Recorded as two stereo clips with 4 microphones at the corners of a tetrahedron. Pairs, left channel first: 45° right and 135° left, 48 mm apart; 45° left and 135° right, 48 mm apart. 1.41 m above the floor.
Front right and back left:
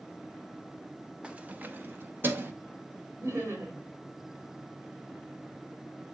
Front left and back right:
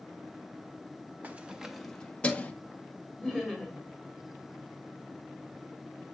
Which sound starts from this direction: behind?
Keys jangling, at 1.2 s.